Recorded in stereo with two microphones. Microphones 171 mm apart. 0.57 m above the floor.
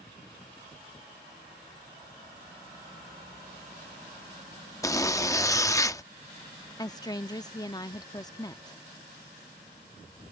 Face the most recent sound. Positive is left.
turn(degrees=20)  # may be behind; listen again after turning